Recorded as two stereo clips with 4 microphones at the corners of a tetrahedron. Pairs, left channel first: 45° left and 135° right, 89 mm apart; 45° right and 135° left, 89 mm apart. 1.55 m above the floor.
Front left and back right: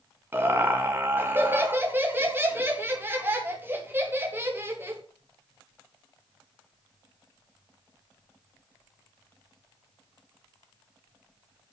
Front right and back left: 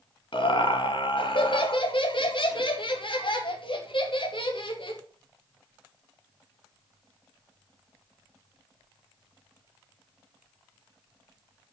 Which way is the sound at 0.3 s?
70° right.